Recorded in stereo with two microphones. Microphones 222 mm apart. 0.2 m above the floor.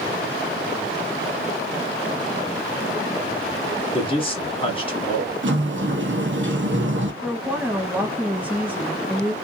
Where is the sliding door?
60° right (ahead or behind), 0.7 m.